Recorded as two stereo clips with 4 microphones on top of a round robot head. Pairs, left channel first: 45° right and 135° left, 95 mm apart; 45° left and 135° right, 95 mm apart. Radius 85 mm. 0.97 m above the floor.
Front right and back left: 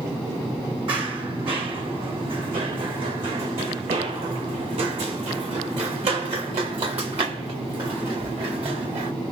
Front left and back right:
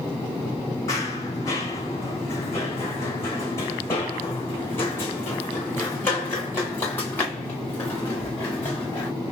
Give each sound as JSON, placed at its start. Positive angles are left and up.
{"t": 0.9, "sound": "running footsteps", "azimuth_deg": 100, "distance_m": 3.0}